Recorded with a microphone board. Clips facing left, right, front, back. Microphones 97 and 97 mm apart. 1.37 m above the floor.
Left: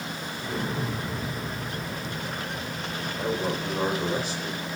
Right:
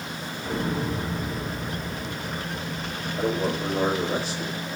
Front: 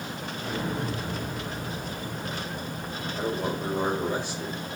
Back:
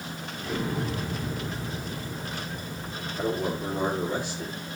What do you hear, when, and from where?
0.4 s an explosion: 60° right, 3 m
3.2 s a man speaking: 60° right, 3 m